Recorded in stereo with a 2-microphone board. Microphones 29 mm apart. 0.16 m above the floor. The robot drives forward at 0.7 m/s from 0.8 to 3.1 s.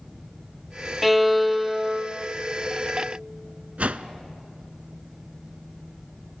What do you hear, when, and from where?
1.0 s a violin: centre (ahead or behind), 0.5 m
3.8 s a whoosh: 55° right (ahead or behind), 0.5 m